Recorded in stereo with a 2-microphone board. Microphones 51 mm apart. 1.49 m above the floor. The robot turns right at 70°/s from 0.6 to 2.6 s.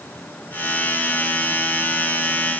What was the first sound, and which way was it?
Only background noise.